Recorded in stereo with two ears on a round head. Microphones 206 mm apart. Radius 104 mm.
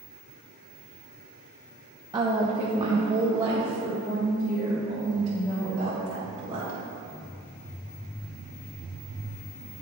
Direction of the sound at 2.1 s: 15° right (ahead or behind).